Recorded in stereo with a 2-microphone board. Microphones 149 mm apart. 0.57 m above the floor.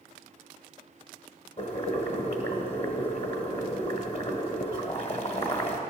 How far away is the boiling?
About 1.5 m.